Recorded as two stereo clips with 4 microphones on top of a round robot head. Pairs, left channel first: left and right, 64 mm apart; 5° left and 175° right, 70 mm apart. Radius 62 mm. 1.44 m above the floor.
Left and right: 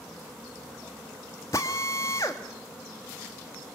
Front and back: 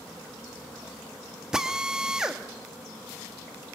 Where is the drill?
115° left, 0.9 m.